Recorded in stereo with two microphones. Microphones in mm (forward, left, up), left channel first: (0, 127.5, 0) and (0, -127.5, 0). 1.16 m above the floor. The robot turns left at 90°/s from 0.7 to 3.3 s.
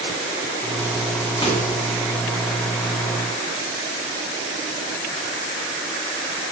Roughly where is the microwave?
Centre.